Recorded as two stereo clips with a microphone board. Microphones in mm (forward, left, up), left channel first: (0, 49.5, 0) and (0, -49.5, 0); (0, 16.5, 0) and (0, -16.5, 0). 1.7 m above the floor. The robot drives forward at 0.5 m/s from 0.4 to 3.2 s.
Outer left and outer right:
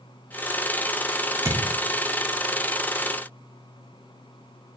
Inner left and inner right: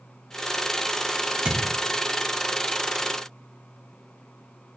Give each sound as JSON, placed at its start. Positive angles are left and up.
{"t": 1.4, "sound": "a thud", "side_deg": -30, "distance_m": 1.1}